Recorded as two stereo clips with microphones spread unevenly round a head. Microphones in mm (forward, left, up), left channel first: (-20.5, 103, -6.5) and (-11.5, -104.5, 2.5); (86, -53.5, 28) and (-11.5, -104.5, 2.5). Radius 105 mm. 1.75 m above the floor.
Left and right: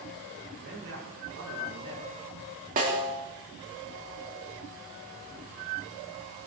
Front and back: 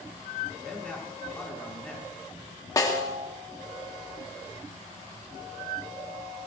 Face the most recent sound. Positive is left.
turn(degrees=-30)